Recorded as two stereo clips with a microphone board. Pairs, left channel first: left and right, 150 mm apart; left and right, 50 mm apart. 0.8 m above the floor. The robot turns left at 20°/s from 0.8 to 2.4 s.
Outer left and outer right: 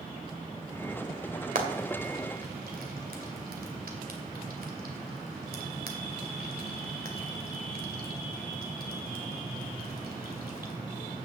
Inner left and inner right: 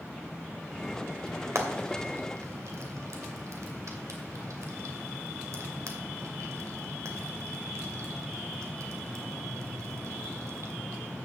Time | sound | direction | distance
1.6 | frying | 70° right (ahead or behind) | 2 m